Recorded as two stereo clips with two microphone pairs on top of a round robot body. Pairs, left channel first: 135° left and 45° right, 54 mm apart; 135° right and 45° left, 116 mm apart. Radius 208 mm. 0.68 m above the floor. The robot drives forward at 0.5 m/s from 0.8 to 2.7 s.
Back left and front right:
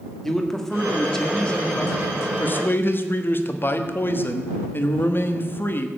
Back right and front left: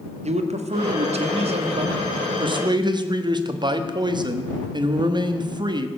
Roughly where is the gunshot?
No gunshot in this recording.